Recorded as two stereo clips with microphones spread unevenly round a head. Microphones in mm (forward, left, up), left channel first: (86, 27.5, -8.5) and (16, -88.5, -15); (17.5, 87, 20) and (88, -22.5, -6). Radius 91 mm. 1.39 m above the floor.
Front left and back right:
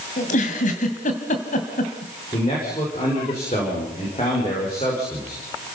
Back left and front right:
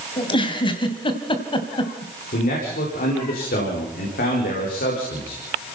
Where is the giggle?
85° left, 2.5 m.